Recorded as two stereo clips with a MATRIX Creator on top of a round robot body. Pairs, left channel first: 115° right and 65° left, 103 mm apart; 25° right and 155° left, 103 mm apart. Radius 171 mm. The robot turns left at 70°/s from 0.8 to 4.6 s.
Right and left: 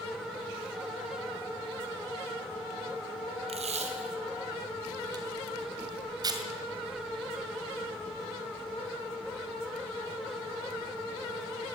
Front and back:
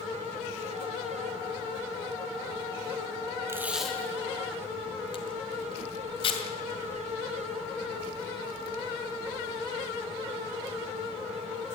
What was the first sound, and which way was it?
Tape being pulled, 90° left.